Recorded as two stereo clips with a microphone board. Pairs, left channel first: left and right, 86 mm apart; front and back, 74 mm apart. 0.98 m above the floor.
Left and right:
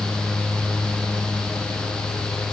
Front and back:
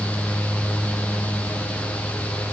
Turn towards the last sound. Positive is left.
No sound to turn to.